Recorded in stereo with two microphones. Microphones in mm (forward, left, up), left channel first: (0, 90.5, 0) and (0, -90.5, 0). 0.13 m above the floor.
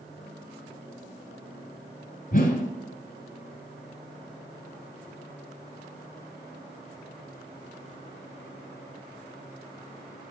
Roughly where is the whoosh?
Left.